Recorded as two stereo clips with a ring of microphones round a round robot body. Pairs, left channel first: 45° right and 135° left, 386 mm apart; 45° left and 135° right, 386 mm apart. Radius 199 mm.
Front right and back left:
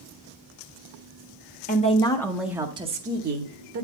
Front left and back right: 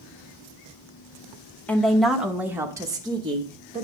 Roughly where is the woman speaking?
Ahead right.